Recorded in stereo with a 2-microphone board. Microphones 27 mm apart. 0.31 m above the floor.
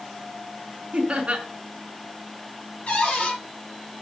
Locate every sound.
0.9 s laughter: 45° right (ahead or behind), 2 m
2.9 s a cupboard door: 45° left (ahead or behind), 5 m